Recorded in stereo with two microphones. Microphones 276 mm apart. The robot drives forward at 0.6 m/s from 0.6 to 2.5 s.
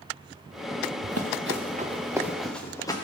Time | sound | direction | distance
1.0 | running footsteps | 70° right (ahead or behind) | 1.3 m